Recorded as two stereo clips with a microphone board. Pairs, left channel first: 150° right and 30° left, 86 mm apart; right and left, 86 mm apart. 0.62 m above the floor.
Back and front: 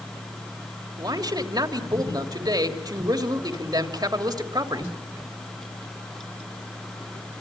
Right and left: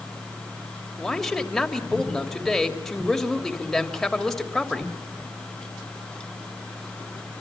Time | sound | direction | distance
1.0 | a man speaking | 5° right | 3 m